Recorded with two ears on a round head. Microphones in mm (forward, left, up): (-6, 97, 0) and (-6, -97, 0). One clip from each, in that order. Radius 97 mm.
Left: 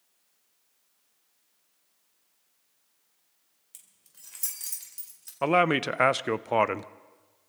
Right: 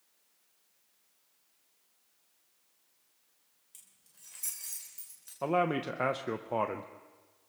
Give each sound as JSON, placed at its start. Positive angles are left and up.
{"t": 3.7, "sound": "keys jangling", "side_deg": 25, "distance_m": 3.0}
{"t": 5.4, "sound": "a man speaking", "side_deg": 60, "distance_m": 0.5}